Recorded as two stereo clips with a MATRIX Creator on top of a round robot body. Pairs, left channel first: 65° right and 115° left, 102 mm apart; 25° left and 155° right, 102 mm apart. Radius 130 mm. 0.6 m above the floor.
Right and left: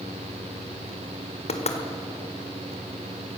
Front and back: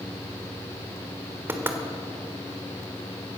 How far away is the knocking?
About 1.5 m.